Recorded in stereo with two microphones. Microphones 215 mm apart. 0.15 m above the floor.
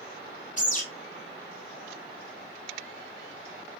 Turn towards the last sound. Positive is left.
turn(degrees=35)  # may be behind; listen again after turning